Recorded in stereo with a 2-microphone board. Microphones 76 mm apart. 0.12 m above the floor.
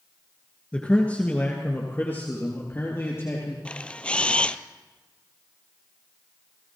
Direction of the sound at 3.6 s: 15° left (ahead or behind).